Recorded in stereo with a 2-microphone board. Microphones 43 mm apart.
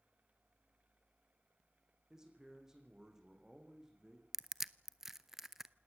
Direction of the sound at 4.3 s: 10° right (ahead or behind).